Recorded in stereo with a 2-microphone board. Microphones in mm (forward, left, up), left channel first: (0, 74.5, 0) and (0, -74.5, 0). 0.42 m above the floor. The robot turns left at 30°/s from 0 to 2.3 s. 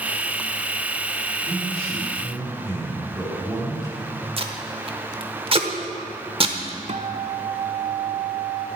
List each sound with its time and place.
1.4 s a man speaking: 50° right (ahead or behind), 4 m; by 4.3 s 30° right (ahead or behind), 4 m
4.4 s tape being pulled: 40° right (ahead or behind), 0.8 m
6.9 s a guitar: 50° right (ahead or behind), 0.7 m